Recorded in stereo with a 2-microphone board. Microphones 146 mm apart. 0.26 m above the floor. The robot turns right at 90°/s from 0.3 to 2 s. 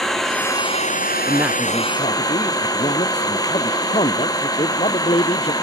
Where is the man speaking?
25° right; by 5.5 s 40° left.